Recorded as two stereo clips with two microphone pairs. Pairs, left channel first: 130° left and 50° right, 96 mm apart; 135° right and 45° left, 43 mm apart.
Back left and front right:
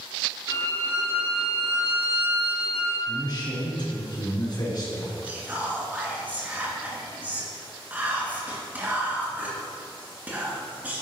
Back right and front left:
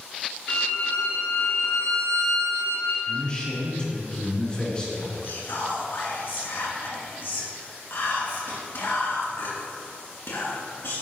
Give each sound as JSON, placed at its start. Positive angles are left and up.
{"t": 0.5, "sound": "a violin", "azimuth_deg": -95, "distance_m": 3.0}
{"t": 3.1, "sound": "a man speaking", "azimuth_deg": 160, "distance_m": 3.0}
{"t": 5.2, "sound": "whispering", "azimuth_deg": -120, "distance_m": 3.0}